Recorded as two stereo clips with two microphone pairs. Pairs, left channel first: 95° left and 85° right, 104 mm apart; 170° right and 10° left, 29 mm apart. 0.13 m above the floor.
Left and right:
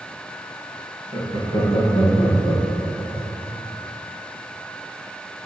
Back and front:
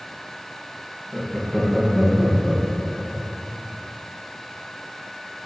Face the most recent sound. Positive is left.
turn(degrees=110)